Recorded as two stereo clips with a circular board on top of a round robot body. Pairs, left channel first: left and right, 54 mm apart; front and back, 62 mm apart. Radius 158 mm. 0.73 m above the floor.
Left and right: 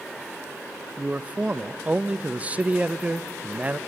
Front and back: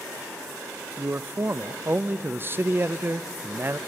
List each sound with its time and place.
1.0 s a man speaking: 145° right, 0.6 m